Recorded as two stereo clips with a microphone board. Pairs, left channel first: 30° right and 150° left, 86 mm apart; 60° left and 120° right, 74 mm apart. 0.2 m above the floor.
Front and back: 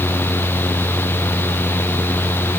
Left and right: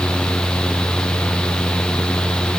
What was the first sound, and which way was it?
Only background noise.